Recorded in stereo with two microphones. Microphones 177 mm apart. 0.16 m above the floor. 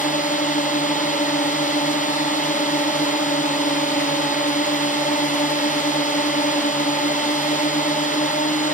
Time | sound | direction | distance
0.0 | a drone | 45° left (ahead or behind) | ?